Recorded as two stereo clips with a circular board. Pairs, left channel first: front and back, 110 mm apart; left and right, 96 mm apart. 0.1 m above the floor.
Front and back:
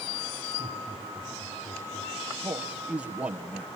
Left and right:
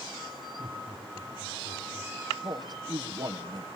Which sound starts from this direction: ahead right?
Laughter, at 0.6 s.